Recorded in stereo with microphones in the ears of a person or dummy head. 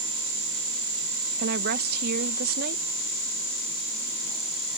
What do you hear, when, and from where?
1.4 s a woman speaking: 60° right (ahead or behind)